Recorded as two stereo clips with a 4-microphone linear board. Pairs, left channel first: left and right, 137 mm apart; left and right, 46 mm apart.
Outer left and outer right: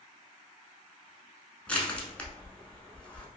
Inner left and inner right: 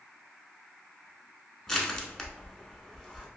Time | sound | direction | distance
1.7 | crushing | 10° left (ahead or behind) | 0.7 m